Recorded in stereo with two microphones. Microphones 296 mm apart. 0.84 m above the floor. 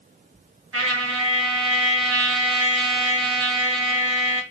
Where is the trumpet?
50° right (ahead or behind), 0.8 m.